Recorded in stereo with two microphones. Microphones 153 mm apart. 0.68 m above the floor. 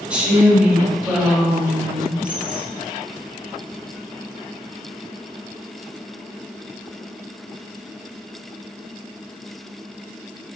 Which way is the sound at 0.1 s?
5° right (ahead or behind).